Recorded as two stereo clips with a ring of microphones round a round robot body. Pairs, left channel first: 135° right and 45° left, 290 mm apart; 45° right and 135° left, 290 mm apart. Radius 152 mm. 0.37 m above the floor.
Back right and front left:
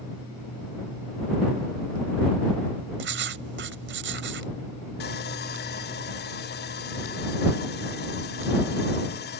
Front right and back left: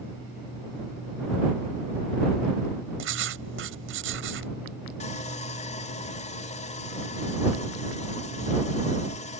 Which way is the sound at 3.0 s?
90° left.